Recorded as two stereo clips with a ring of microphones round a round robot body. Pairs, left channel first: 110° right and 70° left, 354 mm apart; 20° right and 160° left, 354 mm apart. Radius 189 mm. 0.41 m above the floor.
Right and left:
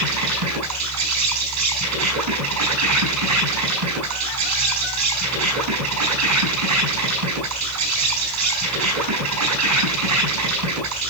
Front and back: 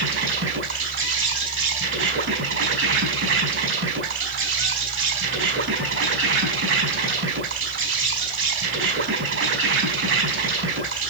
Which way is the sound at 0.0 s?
105° left.